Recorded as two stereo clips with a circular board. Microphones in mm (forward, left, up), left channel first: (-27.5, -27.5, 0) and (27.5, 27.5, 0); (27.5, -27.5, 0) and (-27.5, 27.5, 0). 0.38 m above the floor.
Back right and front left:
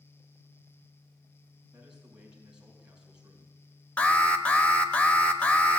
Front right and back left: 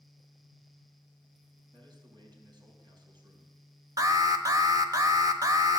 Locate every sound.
1.7 s a man speaking: 125° left, 3.5 m
4.0 s an alarm: 155° left, 1.0 m